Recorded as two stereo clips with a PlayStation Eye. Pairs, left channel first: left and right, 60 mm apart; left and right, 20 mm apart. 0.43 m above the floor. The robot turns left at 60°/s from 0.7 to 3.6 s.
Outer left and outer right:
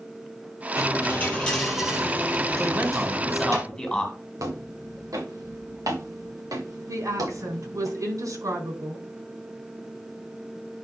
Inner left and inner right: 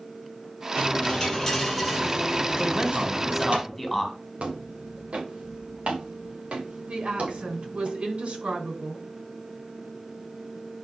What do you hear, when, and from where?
0.8 s a dropped coin: 60° left, 4.5 m; by 3.6 s 110° right, 4.5 m
2.6 s a man speaking: 130° right, 2.5 m; by 4.1 s 170° left, 2.5 m
4.4 s footsteps: 75° right (ahead or behind), 4 m; by 7.9 s 80° right, 5.5 m
6.9 s a woman speaking: 75° right (ahead or behind), 5 m